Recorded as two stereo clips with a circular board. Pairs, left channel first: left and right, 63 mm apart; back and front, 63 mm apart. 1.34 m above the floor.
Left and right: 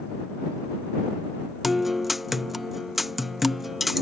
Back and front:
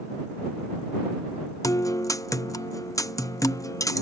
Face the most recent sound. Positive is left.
turn(degrees=-175)